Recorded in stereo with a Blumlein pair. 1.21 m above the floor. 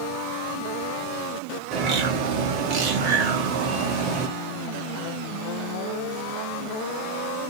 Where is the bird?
40° right, 1.0 m.